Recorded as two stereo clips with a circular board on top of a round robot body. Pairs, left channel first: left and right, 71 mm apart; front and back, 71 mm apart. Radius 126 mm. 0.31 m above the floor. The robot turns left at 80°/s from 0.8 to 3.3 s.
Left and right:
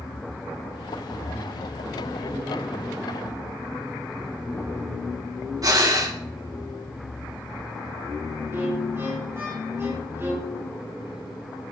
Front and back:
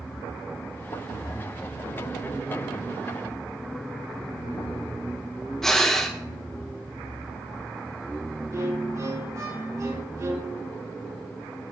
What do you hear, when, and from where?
5.6 s breathing: 80° right, 2.5 m
8.5 s a violin: 140° right, 4 m